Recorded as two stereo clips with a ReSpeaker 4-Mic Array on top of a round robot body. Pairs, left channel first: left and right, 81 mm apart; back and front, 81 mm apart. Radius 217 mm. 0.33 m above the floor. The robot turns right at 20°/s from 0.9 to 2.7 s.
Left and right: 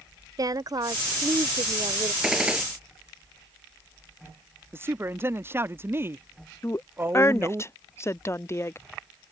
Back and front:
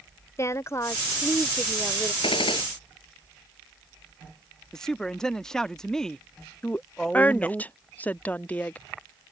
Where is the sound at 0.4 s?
125° right; by 2.1 s 105° right.